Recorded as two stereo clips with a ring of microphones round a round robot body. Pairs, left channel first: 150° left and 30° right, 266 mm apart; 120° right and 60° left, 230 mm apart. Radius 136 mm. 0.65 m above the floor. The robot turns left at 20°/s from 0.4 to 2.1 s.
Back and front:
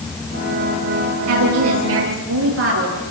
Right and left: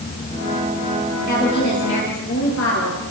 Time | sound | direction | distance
1.3 | a woman speaking | 55° right | 10 m